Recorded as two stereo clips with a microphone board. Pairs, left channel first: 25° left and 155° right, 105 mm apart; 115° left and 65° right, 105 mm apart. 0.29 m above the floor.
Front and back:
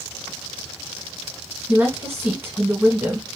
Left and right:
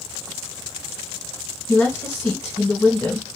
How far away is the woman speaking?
About 1.5 m.